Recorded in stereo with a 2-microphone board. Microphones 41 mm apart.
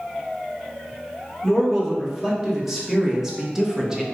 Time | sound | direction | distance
1.4 | a man speaking | 5° right (ahead or behind) | 3 m